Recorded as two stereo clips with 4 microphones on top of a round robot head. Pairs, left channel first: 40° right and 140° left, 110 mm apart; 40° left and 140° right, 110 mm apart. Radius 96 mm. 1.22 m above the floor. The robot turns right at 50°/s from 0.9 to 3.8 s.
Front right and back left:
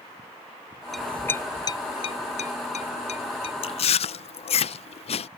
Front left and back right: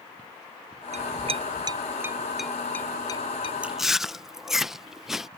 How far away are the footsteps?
No footsteps in this recording.